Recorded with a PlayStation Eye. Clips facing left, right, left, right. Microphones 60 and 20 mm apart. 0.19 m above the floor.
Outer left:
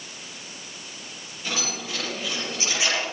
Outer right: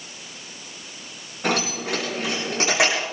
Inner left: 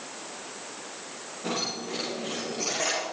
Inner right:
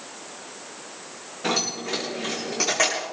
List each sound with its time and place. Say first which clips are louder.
1.4 s keys jangling: outer right 7 dB, inner right 6 dB; 75° right (ahead or behind), 8.5 m; by 3.0 s 80° right, 8 m